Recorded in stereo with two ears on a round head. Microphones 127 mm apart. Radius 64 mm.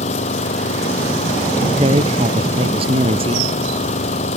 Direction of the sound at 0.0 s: 50° left (ahead or behind).